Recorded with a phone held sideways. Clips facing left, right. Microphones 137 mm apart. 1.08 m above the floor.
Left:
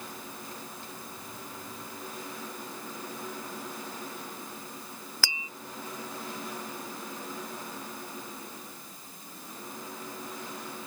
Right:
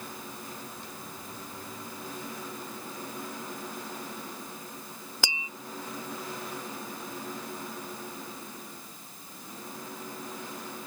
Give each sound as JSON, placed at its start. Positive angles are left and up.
{"t": 5.2, "sound": "tapping", "side_deg": -20}